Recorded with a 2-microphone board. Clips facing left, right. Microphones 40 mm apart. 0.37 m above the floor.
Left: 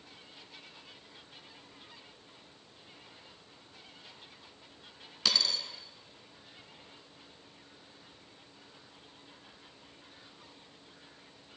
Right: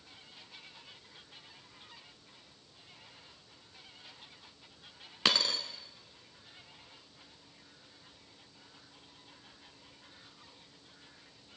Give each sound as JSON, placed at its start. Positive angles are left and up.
{"t": 5.2, "sound": "a dropped coin", "side_deg": -40, "distance_m": 0.8}